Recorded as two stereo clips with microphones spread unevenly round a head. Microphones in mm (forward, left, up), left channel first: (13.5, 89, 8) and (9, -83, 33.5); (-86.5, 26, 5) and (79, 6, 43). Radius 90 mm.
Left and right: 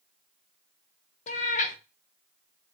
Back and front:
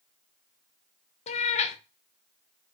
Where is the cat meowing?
125° left, 0.5 m.